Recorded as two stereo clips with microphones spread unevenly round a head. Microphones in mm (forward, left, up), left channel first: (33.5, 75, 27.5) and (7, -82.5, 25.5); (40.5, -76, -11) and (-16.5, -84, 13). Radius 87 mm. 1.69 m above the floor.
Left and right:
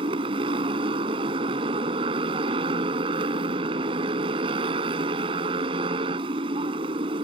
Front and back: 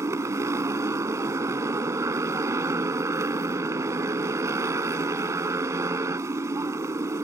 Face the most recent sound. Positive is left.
turn(degrees=-165)